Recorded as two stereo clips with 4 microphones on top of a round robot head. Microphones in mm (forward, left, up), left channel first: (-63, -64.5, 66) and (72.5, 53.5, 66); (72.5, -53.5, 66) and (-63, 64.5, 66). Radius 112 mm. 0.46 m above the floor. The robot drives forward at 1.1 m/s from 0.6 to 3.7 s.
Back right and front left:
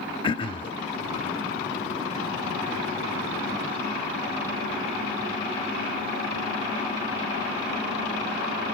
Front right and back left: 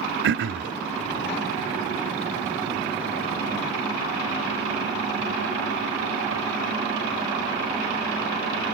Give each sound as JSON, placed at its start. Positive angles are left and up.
{"t": 0.2, "sound": "throat clearing", "azimuth_deg": 160, "distance_m": 0.7}